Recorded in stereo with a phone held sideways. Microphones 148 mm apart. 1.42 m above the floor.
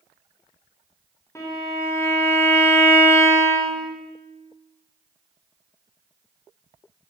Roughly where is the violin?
Centre.